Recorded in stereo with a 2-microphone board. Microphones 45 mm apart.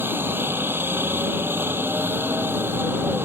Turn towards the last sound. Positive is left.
turn(degrees=-55)  # may be behind; listen again after turning